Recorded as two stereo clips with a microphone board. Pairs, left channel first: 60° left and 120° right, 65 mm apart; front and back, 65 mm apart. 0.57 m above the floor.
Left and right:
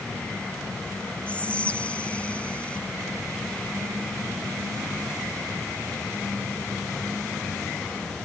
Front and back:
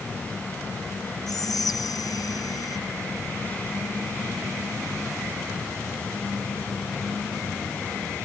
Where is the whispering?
10° right.